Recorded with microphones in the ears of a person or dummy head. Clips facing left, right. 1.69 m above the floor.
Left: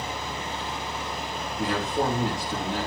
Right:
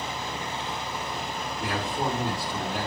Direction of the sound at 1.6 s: 40° left (ahead or behind).